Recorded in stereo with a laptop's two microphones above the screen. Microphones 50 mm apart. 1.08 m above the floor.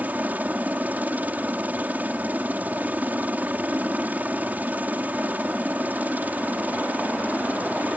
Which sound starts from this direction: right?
A helicopter, at 0.0 s.